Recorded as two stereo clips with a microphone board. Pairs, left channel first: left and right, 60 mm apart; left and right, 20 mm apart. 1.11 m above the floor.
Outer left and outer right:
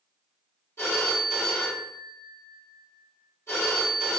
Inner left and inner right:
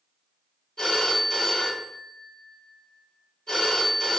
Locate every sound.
0.8 s a phone ringing: 45° left (ahead or behind), 2.0 m